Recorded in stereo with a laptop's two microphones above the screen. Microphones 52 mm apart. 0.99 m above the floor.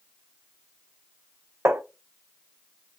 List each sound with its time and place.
1.6 s tapping: 65° right (ahead or behind), 0.9 m